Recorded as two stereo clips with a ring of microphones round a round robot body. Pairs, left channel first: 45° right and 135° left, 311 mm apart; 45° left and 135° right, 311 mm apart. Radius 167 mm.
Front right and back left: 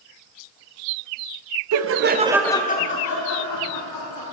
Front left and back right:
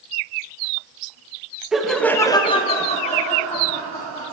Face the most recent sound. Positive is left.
turn(degrees=-25)